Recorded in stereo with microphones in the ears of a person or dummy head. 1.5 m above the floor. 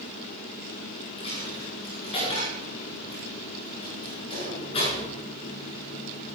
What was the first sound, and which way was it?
A dropped coin, 30° left (ahead or behind).